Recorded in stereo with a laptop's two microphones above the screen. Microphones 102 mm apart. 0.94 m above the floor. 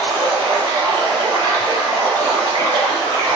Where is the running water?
45° right (ahead or behind), 0.8 m.